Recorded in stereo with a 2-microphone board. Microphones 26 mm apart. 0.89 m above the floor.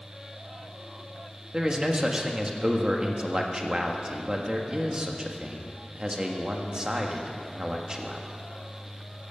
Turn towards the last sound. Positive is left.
turn(degrees=-30)  # may be behind; listen again after turning